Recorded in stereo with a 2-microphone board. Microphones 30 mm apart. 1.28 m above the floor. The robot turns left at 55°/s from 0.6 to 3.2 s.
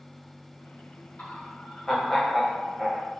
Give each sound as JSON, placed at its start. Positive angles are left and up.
{"t": 1.2, "sound": "laughter", "azimuth_deg": 55, "distance_m": 1.0}